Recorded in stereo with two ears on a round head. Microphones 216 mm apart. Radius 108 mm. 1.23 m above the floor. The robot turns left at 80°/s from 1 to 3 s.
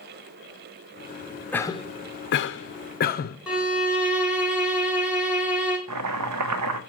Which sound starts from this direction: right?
Chopping, at 5.9 s.